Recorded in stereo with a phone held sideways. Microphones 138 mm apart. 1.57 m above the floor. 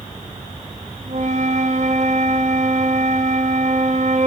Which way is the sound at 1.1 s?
55° right (ahead or behind).